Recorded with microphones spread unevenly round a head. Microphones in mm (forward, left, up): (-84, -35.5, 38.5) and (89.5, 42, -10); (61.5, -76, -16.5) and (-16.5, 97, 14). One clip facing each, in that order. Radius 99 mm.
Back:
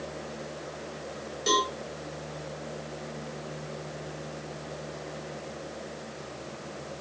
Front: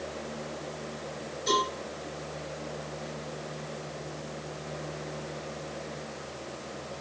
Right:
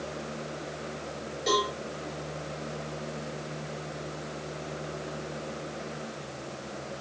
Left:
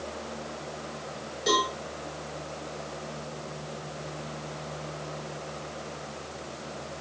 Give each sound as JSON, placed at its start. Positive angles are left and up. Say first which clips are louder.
{"t": 1.5, "sound": "a cowbell", "louder": "back 1 dB, even", "azimuth_deg": -165, "distance_m": 9.0}